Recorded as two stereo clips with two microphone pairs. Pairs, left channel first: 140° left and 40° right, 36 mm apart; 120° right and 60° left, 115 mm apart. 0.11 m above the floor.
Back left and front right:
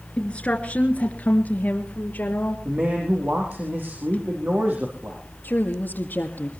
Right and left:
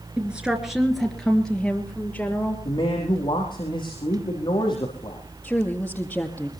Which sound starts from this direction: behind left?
A woman speaking, at 0.2 s.